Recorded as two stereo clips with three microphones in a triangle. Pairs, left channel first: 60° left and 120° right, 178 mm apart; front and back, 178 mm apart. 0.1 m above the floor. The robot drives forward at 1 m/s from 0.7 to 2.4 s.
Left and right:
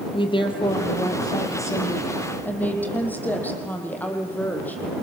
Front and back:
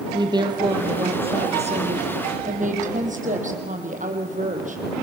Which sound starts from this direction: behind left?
A woman speaking, at 0.1 s.